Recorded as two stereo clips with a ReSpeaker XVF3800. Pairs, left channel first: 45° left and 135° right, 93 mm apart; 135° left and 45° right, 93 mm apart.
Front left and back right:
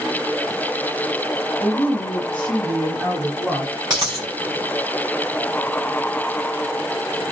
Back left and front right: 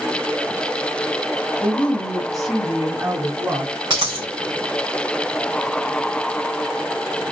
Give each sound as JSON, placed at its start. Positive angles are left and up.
{"t": 1.6, "sound": "a woman speaking", "azimuth_deg": 85, "distance_m": 1.5}
{"t": 3.9, "sound": "a dropped coin", "azimuth_deg": -90, "distance_m": 2.5}